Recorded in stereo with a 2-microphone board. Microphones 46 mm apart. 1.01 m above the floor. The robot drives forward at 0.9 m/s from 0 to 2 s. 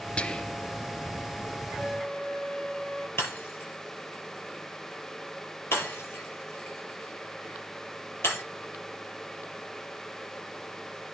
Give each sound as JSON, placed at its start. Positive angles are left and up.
{"t": 0.2, "sound": "whispering", "side_deg": 20, "distance_m": 0.6}
{"t": 1.8, "sound": "a flute", "side_deg": 15, "distance_m": 1.0}
{"t": 3.2, "sound": "breaking glass", "side_deg": 60, "distance_m": 7.0}